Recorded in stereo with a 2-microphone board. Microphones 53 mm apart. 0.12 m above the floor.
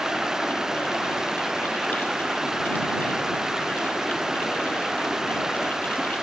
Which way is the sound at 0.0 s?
10° right (ahead or behind).